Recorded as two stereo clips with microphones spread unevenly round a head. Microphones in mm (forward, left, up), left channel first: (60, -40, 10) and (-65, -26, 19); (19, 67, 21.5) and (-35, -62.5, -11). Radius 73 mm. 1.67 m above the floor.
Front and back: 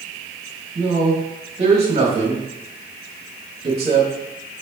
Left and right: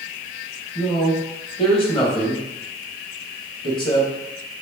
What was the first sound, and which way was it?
A man speaking, 120° left.